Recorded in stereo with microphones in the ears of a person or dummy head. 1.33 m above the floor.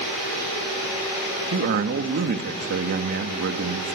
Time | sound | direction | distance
1.5 | a man speaking | 50° right (ahead or behind) | 1.6 m